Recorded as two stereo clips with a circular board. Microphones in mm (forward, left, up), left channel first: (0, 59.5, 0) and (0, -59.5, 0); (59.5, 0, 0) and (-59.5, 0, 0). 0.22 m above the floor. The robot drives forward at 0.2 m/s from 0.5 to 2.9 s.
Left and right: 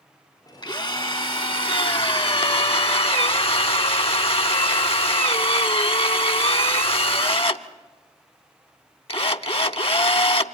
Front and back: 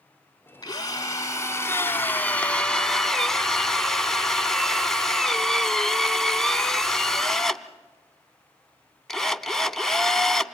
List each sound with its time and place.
0.6 s a drill: 50° left, 0.8 m; by 10.5 s 85° left, 0.7 m